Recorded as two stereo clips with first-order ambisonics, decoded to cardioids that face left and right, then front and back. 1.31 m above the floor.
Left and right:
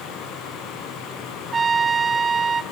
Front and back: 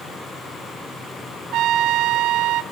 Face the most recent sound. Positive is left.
turn(degrees=-160)